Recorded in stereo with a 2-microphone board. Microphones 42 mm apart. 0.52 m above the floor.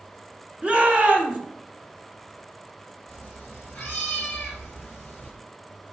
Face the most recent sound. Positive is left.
turn(degrees=25)  # may be behind; listen again after turning